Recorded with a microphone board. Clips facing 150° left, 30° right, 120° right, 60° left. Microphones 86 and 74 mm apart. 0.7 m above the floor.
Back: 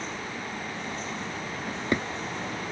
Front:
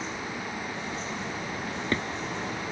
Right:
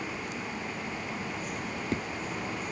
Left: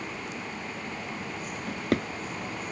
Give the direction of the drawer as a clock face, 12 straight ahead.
9 o'clock.